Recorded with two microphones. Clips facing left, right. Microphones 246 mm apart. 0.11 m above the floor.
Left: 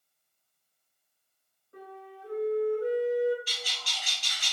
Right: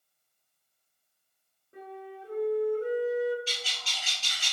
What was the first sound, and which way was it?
A flute, 20° right (ahead or behind).